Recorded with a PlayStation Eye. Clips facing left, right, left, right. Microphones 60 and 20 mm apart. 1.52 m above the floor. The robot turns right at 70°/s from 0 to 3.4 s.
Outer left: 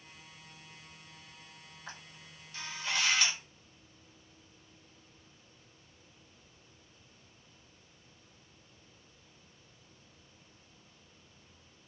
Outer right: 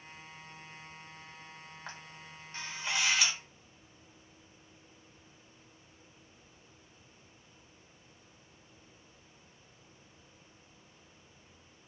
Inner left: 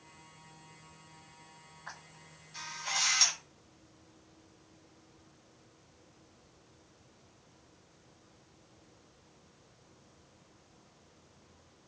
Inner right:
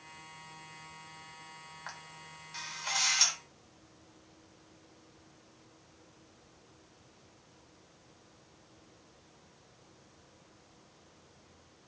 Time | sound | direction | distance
1.9 | a camera shutter | 50° right (ahead or behind) | 0.9 m